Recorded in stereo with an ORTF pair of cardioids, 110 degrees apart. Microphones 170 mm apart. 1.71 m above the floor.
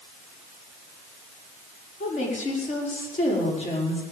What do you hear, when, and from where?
2.0 s a woman speaking: 45° left, 5.5 m